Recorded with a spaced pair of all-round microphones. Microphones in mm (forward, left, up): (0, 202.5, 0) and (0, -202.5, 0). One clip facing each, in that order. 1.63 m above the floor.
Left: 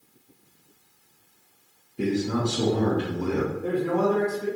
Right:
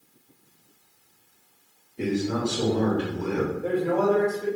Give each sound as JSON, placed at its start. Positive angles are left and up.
{"t": 2.0, "sound": "a man speaking", "side_deg": 20, "distance_m": 0.9}
{"t": 3.5, "sound": "a man speaking", "side_deg": 15, "distance_m": 1.5}